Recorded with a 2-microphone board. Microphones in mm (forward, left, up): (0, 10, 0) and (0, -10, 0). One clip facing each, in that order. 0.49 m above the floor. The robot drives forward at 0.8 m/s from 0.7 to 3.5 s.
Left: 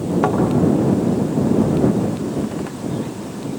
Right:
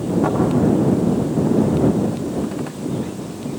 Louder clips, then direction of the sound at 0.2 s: Left 2 dB; 70° left (ahead or behind).